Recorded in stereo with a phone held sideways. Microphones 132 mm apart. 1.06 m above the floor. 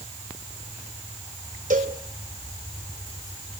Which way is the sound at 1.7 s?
75° right (ahead or behind).